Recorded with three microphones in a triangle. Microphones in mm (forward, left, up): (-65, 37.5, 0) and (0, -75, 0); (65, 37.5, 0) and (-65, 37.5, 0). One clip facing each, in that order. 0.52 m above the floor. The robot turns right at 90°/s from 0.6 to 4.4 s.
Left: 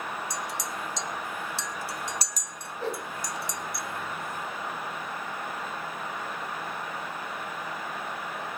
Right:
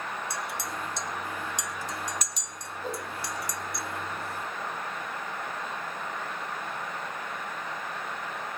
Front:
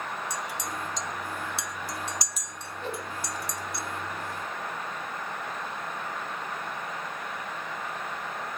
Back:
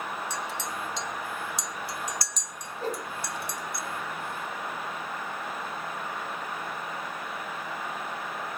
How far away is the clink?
About 1.1 m.